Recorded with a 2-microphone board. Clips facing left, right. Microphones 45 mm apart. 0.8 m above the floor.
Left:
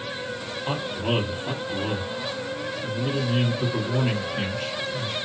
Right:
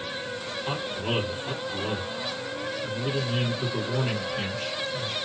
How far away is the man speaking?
About 1.6 m.